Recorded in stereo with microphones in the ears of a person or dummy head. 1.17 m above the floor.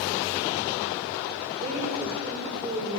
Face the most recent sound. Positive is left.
turn(degrees=-35)  # may be behind; listen again after turning